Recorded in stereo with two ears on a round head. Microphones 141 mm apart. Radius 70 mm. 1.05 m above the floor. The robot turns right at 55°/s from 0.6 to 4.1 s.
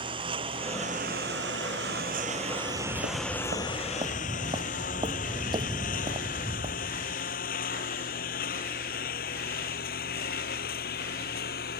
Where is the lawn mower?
35° right (ahead or behind); by 11.8 s 65° left (ahead or behind).